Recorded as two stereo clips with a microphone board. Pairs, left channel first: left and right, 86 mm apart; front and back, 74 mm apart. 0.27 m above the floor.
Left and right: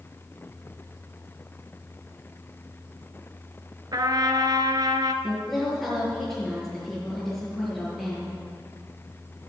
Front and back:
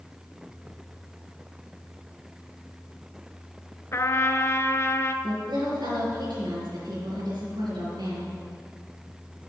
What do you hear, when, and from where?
3.9 s a trumpet: 55° right, 0.8 m
5.2 s a woman speaking: 175° left, 4 m